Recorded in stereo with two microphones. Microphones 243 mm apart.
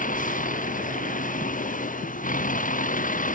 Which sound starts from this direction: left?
A vehicle, at 0.0 s.